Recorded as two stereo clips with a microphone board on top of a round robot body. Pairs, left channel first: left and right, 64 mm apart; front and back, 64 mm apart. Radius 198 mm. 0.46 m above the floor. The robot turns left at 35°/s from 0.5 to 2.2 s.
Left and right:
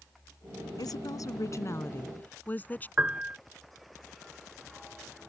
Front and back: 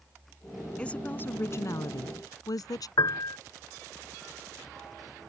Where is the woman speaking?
75° left; by 2.9 s 25° left.